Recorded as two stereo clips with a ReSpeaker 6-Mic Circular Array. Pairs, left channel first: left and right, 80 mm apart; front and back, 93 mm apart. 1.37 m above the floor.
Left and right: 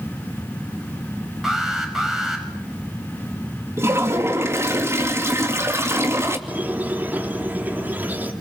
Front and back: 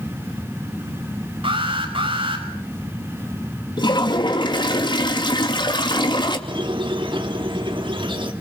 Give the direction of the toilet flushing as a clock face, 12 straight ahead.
1 o'clock.